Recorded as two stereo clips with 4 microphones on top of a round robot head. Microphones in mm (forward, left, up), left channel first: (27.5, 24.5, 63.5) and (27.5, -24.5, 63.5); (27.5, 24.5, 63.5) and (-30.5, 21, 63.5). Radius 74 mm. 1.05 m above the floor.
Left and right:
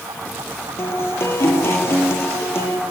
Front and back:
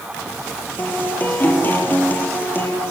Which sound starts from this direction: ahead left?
A guitar, at 0.8 s.